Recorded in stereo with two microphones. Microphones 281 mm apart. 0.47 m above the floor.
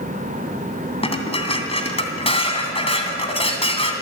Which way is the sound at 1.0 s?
20° left (ahead or behind).